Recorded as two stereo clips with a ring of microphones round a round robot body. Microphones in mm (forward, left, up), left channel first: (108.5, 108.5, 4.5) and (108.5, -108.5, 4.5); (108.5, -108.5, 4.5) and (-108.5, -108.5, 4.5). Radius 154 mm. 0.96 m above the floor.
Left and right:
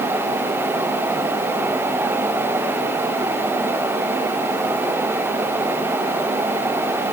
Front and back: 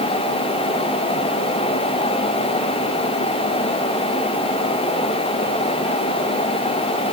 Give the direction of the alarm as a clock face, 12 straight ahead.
I don't hear an alarm.